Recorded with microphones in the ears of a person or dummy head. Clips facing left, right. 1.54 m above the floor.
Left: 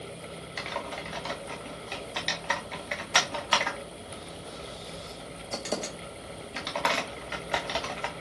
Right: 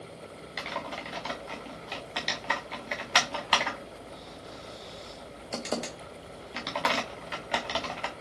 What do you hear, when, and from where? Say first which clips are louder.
0.6 s typing on a keyboard: even; 5° right (ahead or behind), 0.9 m